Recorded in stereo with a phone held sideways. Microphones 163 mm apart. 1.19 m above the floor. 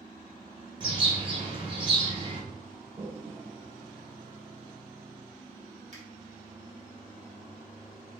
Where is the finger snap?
55° right (ahead or behind), 1.1 m.